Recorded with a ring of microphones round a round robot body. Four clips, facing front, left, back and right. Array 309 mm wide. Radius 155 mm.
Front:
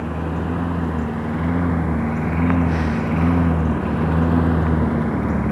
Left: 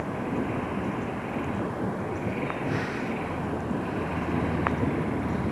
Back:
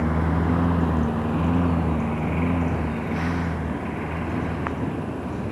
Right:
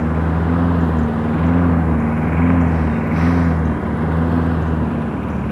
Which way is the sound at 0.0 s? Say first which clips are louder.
Right 9 dB, back 1 dB; 100° right.